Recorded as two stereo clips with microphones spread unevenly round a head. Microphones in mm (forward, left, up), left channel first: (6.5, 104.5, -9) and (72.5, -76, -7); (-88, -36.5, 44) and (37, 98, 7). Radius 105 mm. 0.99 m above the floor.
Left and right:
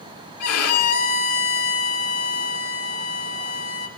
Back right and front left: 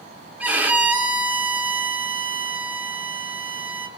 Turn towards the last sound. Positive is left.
turn(degrees=130)